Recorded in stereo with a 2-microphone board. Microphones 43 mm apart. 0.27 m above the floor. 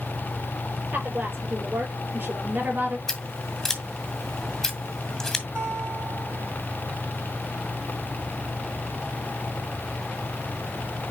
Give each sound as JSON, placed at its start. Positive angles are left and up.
{"t": 0.9, "sound": "a woman speaking", "side_deg": -50, "distance_m": 6.5}
{"t": 3.1, "sound": "scissors", "side_deg": 10, "distance_m": 2.0}
{"t": 5.5, "sound": "a guitar", "side_deg": -75, "distance_m": 6.5}